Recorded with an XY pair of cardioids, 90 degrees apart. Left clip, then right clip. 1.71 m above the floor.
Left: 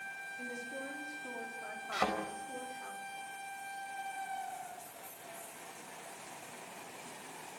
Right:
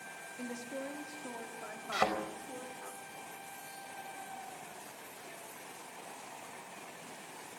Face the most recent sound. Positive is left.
turn(degrees=-25)